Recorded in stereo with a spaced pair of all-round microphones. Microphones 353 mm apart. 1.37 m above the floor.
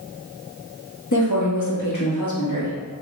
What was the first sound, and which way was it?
A woman speaking, 55° left (ahead or behind).